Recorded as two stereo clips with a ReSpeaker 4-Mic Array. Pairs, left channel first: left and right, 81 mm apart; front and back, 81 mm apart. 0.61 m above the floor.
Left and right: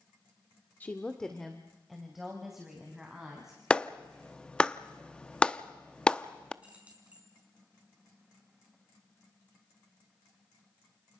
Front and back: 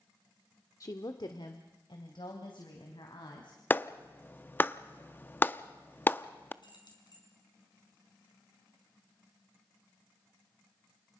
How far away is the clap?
About 0.5 m.